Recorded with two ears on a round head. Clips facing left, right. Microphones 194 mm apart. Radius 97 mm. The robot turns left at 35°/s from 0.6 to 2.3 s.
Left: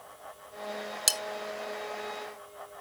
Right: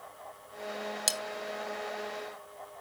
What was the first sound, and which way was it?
Cutlery clinking, 5° left (ahead or behind).